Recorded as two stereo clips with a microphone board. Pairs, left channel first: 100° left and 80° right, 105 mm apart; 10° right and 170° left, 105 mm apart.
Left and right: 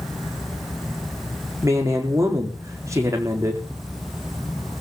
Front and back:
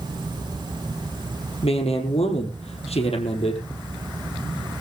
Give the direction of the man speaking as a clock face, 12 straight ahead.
1 o'clock.